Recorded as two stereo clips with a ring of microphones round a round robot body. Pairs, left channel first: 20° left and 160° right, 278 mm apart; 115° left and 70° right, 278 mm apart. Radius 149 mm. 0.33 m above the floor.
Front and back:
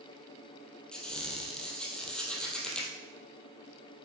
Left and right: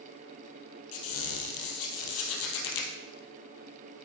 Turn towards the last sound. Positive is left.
turn(degrees=110)